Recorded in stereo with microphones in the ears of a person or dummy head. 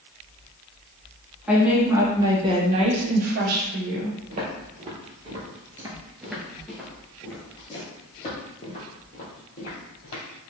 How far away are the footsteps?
About 1.8 m.